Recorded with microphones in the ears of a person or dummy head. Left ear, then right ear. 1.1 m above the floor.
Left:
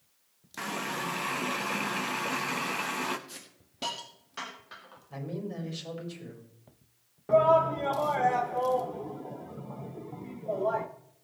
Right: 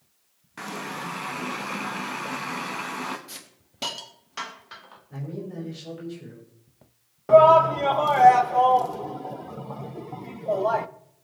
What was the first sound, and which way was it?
A running tap, 10° left (ahead or behind).